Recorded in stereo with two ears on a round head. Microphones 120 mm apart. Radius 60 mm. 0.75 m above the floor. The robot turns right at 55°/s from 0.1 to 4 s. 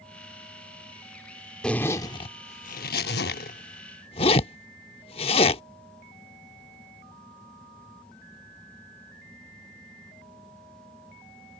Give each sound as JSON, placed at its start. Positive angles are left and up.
{"t": 1.6, "sound": "a zipper", "side_deg": 5}